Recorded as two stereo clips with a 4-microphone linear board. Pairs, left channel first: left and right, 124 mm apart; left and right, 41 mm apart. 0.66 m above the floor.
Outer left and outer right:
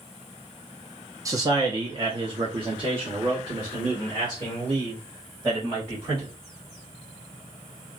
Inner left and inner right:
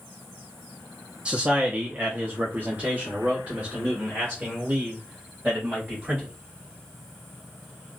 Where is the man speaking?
25° right (ahead or behind), 0.7 m; by 6.3 s 40° right (ahead or behind), 2.5 m.